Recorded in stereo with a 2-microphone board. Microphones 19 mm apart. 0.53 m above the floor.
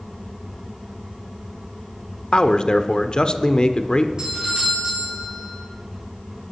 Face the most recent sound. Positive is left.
turn(degrees=-45)  # may be behind; listen again after turning